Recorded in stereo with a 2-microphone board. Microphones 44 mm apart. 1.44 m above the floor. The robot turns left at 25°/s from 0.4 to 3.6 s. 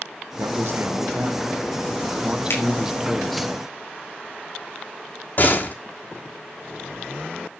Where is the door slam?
45° left (ahead or behind), 3 m.